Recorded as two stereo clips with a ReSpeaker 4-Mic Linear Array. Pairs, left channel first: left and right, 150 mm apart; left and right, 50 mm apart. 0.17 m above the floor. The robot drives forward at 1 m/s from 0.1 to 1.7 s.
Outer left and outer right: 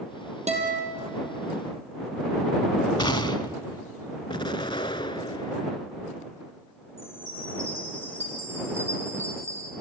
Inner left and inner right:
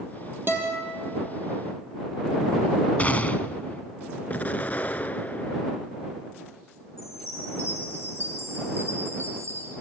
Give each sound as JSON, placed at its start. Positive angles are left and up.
{"t": 0.5, "sound": "a guitar", "side_deg": -45, "distance_m": 3.5}
{"t": 3.0, "sound": "a gunshot", "side_deg": 30, "distance_m": 0.8}
{"t": 4.3, "sound": "an explosion", "side_deg": 35, "distance_m": 0.7}
{"t": 7.0, "sound": "a chime", "side_deg": -45, "distance_m": 5.0}